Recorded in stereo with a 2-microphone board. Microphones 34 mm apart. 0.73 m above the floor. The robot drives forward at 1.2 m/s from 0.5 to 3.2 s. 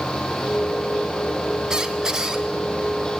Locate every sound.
1.7 s a squeak: 15° right (ahead or behind), 0.6 m